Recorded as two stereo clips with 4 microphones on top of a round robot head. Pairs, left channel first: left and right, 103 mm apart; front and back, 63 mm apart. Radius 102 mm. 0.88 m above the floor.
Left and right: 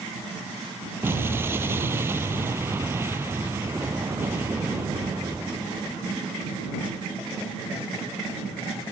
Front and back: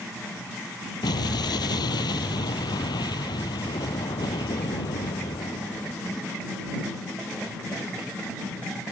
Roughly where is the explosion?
Ahead.